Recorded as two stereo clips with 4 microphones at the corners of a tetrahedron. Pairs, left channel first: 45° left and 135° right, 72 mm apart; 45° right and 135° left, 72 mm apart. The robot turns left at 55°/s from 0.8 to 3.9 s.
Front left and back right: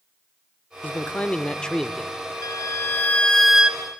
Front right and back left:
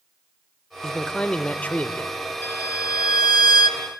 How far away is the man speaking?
About 0.8 m.